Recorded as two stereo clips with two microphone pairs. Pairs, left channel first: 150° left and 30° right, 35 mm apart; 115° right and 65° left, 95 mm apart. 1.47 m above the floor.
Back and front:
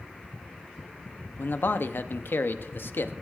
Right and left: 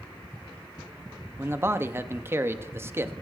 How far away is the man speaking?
About 0.7 m.